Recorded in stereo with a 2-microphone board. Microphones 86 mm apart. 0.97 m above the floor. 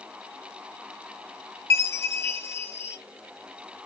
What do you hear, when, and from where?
1.7 s a chime: 25° left (ahead or behind), 0.7 m